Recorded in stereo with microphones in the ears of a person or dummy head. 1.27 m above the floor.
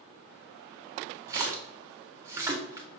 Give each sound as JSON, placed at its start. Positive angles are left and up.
{"t": 1.3, "sound": "a splash", "side_deg": -20, "distance_m": 0.6}